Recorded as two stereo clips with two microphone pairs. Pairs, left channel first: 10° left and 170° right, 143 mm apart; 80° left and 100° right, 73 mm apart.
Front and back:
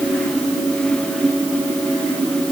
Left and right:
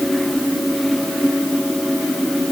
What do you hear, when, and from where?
Only background noise.